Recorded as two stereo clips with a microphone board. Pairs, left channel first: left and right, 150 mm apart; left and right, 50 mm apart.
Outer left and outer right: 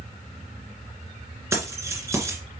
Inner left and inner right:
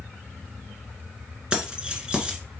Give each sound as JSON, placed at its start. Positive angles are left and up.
{"t": 1.5, "sound": "keys jangling", "side_deg": -20, "distance_m": 1.7}